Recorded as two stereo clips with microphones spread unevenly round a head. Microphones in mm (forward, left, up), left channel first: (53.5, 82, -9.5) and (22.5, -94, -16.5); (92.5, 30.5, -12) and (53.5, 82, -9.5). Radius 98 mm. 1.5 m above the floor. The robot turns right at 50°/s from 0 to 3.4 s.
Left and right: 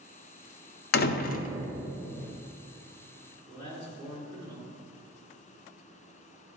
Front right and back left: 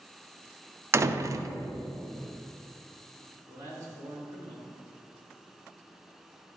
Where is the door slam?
90° left, 0.5 m; by 1.5 s 120° left, 0.5 m.